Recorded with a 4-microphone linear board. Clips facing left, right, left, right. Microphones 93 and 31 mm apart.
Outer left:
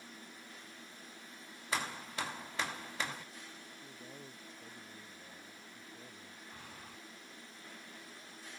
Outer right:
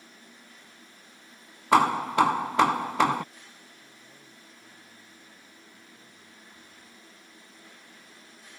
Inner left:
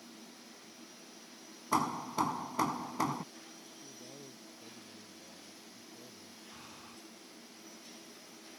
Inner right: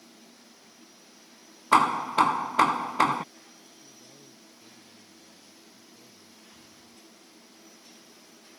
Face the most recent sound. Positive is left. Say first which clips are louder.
# outer left 1 dB, inner left 2 dB
turn(degrees=80)